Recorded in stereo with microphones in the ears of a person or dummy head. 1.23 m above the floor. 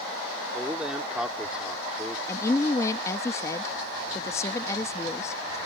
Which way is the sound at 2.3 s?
20° left (ahead or behind).